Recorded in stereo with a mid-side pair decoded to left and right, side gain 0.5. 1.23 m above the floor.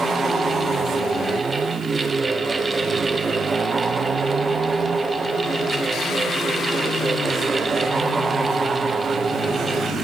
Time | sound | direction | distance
0.0 | a fan | 25° right | 0.8 m